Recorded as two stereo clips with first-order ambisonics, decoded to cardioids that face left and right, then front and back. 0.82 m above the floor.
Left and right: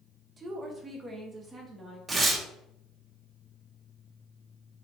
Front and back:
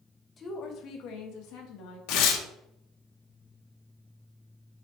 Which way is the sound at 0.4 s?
45° right.